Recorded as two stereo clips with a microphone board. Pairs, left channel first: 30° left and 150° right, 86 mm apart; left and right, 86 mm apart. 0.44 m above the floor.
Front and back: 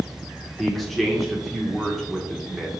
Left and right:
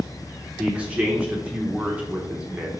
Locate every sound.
0.6 s a man speaking: 55° right, 0.7 m